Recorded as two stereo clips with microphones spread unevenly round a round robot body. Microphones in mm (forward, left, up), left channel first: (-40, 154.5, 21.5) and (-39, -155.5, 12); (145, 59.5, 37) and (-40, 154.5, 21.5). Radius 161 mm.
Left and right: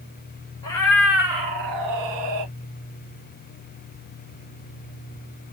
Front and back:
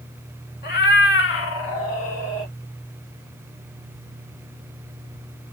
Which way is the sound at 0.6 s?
15° left.